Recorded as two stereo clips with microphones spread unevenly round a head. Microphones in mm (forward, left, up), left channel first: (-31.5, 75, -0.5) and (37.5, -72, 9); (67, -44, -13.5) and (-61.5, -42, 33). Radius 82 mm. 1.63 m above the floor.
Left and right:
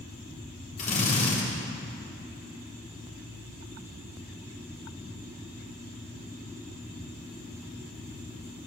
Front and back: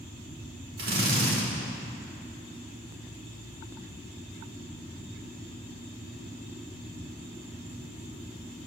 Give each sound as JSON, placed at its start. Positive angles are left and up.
{"t": 0.8, "sound": "a drill", "azimuth_deg": 165, "distance_m": 4.0}